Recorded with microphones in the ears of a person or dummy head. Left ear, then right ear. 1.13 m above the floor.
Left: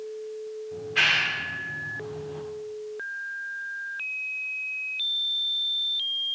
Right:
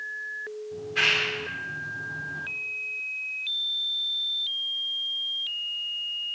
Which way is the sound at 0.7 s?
10° left (ahead or behind).